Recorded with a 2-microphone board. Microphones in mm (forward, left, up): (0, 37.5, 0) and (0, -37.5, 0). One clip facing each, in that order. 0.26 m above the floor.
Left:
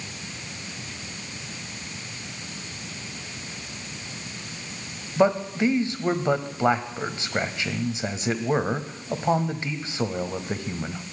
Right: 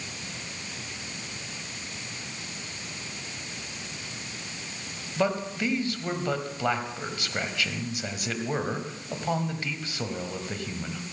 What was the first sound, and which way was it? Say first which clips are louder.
A man speaking: left 6 dB; 25° left (ahead or behind).